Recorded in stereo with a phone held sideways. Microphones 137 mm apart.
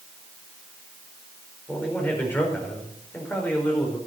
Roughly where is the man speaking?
Centre.